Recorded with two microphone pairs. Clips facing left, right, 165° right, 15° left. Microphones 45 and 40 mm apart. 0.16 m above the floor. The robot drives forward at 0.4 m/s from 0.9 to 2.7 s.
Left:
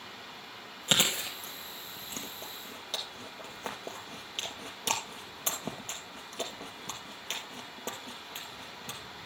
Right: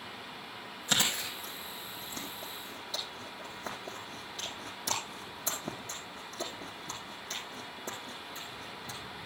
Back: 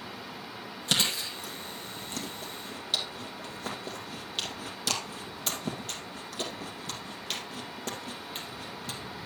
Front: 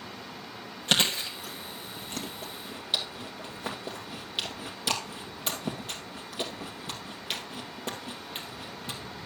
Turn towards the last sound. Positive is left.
turn(degrees=80)